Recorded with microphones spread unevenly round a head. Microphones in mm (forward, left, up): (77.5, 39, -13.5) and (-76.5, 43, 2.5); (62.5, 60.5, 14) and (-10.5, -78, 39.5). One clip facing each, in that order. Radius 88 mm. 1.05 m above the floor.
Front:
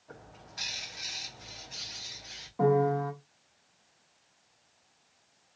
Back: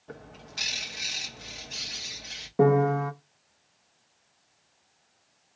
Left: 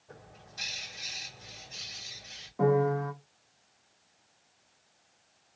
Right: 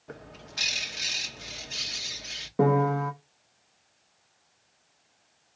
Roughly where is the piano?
Behind right.